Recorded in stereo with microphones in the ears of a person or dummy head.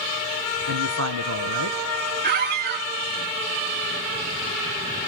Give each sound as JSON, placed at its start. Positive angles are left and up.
{"t": 0.7, "sound": "a man speaking", "side_deg": -75, "distance_m": 0.9}
{"t": 2.2, "sound": "a squeak", "side_deg": -50, "distance_m": 1.3}